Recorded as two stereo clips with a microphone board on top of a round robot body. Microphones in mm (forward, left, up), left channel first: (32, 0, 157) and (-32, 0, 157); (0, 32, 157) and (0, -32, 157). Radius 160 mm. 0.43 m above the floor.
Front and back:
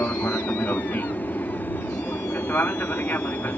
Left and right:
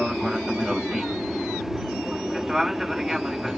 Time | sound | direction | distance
0.0 | an aircraft | 10° right | ?